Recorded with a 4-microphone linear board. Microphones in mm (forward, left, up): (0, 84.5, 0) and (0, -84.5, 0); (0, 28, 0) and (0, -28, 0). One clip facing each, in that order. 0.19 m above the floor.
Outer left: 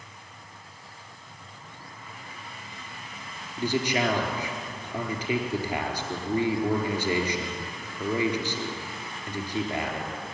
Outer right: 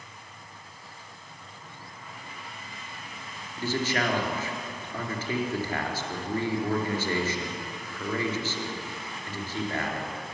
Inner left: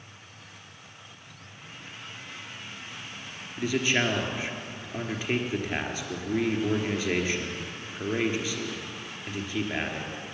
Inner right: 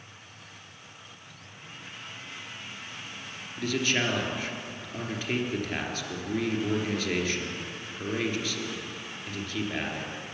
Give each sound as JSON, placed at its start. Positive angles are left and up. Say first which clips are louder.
{"t": 3.6, "sound": "a man speaking", "louder": "outer left 2 dB, inner left 2 dB", "side_deg": 15, "distance_m": 4.0}